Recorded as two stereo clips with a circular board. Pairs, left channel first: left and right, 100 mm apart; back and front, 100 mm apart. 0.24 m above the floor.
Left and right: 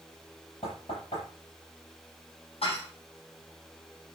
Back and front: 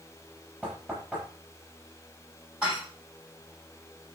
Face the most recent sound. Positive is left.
turn(degrees=80)